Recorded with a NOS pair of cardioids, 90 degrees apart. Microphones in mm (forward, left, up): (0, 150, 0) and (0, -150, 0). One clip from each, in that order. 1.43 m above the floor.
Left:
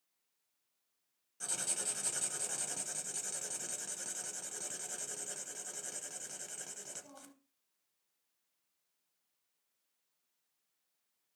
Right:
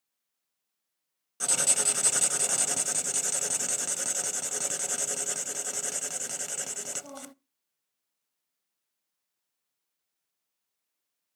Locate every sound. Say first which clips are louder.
1.4 s writing: right 12 dB; 65° right, 0.6 m